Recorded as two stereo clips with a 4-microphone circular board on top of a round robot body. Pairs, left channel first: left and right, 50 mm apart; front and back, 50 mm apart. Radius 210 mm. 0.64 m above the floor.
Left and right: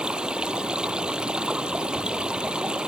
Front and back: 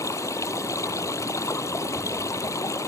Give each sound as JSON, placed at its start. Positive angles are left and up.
{"t": 0.0, "sound": "running water", "azimuth_deg": -15}